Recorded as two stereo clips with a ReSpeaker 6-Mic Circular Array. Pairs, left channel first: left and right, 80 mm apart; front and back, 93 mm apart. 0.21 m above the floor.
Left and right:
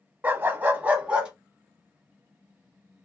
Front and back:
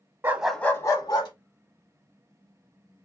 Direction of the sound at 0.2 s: 135° right.